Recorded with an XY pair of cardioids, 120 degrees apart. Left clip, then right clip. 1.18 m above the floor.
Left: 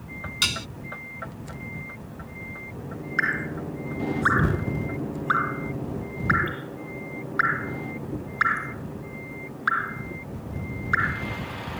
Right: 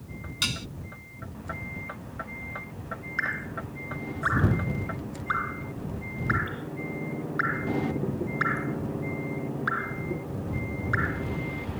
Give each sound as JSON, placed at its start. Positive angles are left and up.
{"t": 0.4, "sound": "dishes clattering", "azimuth_deg": 25}
{"t": 3.2, "sound": "dripping", "azimuth_deg": 25}